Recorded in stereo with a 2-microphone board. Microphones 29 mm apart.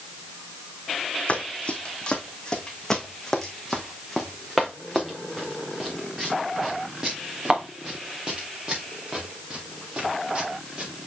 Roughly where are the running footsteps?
Left.